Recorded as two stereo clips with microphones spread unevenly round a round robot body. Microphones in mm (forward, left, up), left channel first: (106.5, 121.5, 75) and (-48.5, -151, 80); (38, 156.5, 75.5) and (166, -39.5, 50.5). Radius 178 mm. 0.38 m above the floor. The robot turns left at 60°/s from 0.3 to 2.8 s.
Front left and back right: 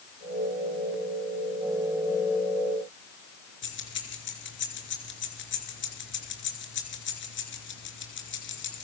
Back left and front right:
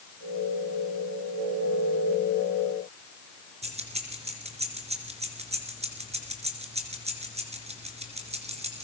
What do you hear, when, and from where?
3.6 s keys jangling: 5° left, 4 m